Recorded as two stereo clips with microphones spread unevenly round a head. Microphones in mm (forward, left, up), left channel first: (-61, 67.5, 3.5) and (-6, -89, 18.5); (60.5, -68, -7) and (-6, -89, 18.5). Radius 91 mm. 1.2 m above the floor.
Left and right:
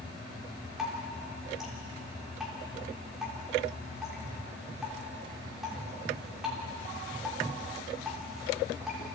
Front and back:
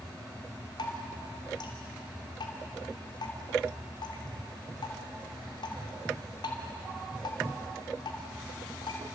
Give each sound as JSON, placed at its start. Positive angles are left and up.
{"t": 0.8, "sound": "dripping", "azimuth_deg": 15, "distance_m": 3.0}